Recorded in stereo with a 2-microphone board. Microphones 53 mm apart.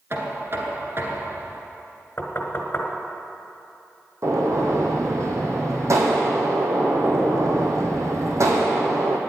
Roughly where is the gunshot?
Right.